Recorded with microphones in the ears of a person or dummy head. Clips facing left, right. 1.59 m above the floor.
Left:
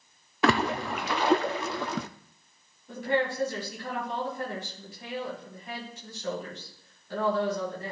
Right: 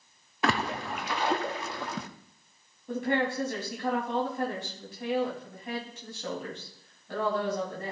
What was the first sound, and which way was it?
A splash, 55° left (ahead or behind).